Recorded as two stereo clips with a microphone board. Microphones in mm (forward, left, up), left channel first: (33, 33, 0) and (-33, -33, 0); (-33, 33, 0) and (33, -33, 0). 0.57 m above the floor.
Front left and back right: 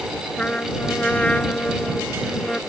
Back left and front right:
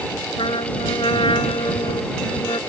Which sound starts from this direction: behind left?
A trumpet, at 0.4 s.